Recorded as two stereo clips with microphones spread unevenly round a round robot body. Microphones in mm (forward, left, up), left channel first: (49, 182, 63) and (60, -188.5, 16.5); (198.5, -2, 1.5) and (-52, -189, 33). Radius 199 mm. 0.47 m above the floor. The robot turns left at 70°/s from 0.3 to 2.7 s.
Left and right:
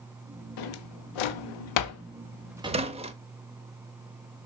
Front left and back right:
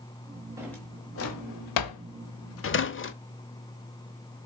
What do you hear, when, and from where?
0.6 s a drawer: 135° left, 0.9 m; by 3.1 s 15° right, 0.9 m